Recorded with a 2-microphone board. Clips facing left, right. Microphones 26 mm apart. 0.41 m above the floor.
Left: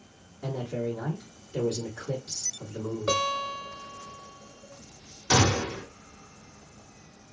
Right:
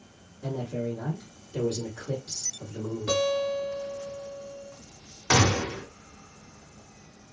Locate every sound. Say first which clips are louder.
0.4 s a man speaking: even; 35° left (ahead or behind), 1.7 m
3.1 s a guitar: right 2 dB; 50° left (ahead or behind), 1.5 m
5.3 s a gunshot: right 1 dB; 40° right (ahead or behind), 1.2 m